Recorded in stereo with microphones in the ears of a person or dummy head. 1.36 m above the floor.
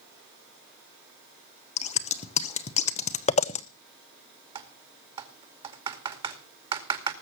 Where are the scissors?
30° left (ahead or behind), 0.8 m.